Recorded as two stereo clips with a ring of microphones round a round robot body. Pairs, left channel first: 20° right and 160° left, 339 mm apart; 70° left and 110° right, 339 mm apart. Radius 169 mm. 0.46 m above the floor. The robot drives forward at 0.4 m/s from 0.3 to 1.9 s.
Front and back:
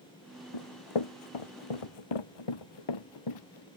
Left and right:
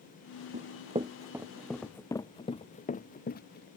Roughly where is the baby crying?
I don't hear a baby crying.